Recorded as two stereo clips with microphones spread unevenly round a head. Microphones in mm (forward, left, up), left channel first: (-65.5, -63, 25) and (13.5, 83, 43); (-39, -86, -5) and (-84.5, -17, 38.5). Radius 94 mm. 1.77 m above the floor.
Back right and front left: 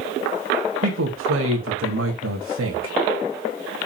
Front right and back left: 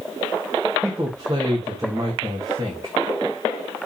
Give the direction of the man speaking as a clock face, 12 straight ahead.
10 o'clock.